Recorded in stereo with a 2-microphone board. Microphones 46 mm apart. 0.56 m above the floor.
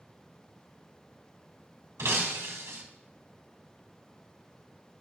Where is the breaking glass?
75° right (ahead or behind), 1.2 m.